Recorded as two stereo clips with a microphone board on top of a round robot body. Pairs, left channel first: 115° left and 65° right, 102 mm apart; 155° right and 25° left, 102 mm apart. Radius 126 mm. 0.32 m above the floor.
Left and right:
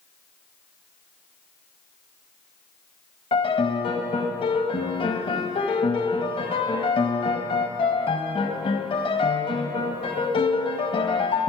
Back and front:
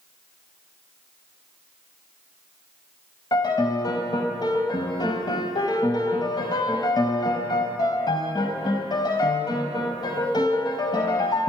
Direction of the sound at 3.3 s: 150° left.